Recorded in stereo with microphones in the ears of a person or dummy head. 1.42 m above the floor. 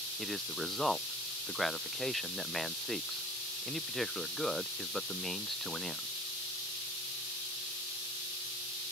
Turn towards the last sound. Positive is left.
turn(degrees=0)  # may be behind; listen again after turning